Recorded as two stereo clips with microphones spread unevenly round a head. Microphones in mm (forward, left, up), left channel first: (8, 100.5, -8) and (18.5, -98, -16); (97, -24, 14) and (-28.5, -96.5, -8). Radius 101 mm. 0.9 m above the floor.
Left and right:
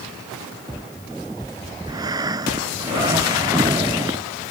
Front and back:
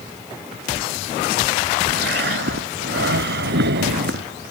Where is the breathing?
160° right.